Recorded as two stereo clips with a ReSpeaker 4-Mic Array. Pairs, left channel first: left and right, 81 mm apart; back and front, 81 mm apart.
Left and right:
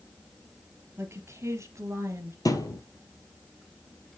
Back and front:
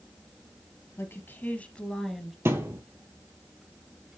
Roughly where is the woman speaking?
Behind right.